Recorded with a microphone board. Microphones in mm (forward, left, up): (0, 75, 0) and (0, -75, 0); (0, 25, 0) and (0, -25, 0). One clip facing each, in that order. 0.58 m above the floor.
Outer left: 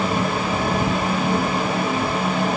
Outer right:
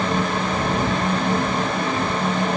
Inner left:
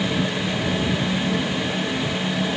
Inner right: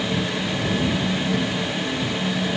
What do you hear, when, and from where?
Only background noise.